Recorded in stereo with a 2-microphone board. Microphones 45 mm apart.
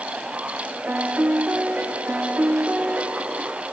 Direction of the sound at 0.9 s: 45° right (ahead or behind).